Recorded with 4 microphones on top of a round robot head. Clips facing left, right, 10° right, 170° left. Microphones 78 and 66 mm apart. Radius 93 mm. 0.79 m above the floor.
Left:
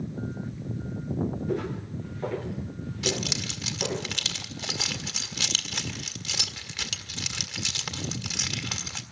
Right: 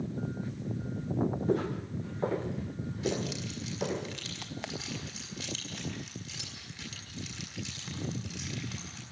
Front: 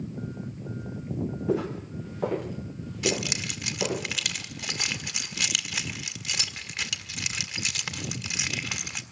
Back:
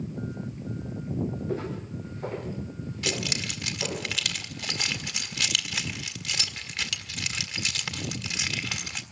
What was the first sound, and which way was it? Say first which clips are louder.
Footsteps: even, front 4 dB; 30° right.